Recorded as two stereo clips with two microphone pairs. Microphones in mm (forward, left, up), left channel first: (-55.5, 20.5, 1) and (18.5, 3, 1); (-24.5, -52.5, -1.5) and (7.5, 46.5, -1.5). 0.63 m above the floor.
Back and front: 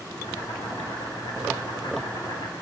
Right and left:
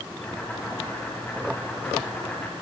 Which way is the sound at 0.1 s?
Straight behind.